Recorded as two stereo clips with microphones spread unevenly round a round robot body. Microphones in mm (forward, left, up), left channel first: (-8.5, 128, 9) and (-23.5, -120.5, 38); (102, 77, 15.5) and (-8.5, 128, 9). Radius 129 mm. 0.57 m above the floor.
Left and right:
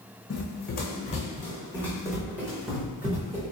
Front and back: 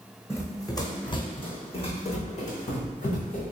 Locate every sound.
0.3 s running footsteps: 40° left, 1.3 m; by 3.5 s 30° right, 1.8 m